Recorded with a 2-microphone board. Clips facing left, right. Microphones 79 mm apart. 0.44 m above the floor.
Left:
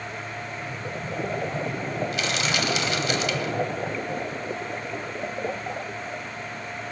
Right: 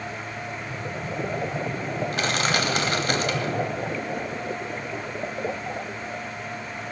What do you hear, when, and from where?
2.1 s crushing: 45° right (ahead or behind), 1.0 m